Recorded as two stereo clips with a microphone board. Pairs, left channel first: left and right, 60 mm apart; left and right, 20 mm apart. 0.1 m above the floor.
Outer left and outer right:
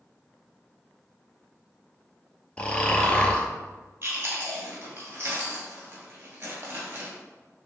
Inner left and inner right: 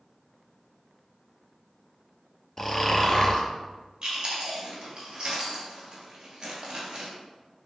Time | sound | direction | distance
2.6 | snoring | 20° left (ahead or behind) | 0.5 m
4.0 | chewing | 40° right (ahead or behind) | 1.1 m